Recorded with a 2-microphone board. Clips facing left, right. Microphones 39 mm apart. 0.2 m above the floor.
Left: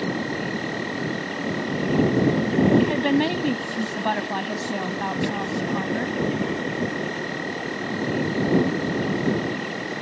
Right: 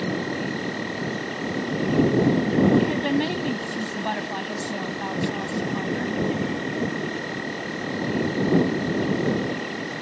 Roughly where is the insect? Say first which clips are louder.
Even; centre.